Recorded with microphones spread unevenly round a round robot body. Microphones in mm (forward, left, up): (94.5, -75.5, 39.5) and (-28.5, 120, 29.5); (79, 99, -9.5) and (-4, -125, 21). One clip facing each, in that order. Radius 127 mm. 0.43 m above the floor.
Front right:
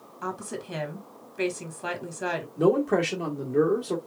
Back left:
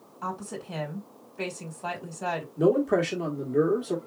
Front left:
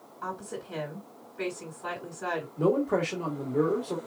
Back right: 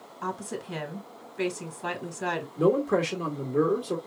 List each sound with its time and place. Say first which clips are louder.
0.2 s a woman speaking: front right 2 dB, back right 3 dB; 120° right, 1.6 m
2.6 s a man speaking: even, back right 2 dB; 150° right, 1.4 m